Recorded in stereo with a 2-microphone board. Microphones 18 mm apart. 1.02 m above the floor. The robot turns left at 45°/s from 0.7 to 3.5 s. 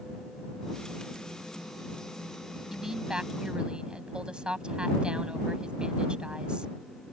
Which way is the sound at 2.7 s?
30° right.